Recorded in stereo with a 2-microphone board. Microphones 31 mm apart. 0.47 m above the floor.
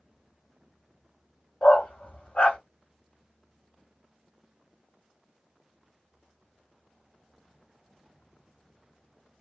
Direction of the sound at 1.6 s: 45° left (ahead or behind).